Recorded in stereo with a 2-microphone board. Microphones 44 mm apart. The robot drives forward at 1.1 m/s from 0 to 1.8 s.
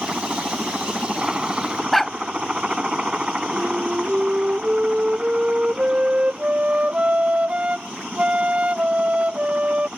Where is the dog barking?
5° left (ahead or behind).